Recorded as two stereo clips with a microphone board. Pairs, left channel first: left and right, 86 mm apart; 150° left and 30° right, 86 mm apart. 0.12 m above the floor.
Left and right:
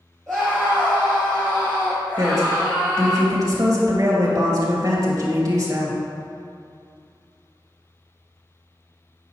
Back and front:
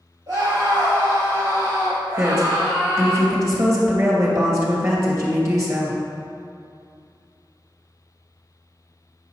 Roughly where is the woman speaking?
Ahead right.